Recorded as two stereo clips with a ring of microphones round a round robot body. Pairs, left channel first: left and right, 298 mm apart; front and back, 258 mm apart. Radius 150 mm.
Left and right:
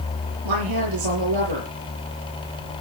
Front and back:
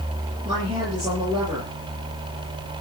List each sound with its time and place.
0.5 s a woman speaking: 105° right, 7 m